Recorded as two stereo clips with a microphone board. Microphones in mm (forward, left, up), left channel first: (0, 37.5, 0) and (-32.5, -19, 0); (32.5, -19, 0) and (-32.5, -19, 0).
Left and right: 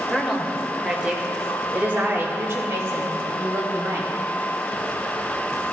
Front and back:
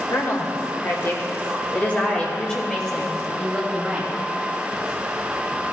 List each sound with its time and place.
0.1 s a woman speaking: 30° right, 1.7 m; by 4.1 s 95° right, 2.5 m